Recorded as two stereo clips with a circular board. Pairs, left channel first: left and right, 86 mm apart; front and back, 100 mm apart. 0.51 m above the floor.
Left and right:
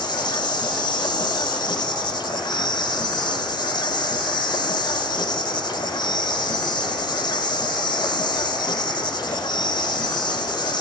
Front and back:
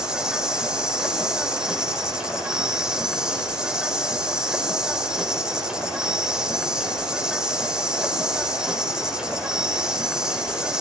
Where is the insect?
95° left, 2.5 m.